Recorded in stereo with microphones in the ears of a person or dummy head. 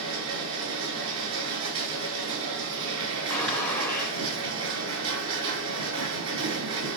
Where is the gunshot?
Centre (ahead or behind), 3.5 m.